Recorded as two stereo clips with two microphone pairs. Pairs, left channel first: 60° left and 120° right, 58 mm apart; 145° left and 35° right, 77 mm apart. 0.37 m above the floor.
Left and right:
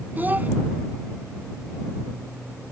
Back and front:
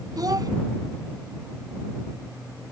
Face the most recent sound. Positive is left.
turn(degrees=-65)